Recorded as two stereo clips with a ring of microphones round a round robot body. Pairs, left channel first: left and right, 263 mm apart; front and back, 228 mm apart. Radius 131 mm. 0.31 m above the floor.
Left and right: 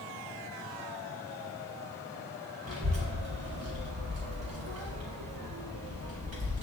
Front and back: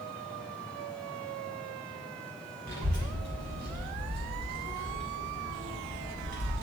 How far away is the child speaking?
About 2 m.